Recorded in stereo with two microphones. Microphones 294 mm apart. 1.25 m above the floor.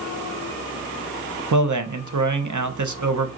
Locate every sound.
1.5 s a man speaking: 80° right, 0.7 m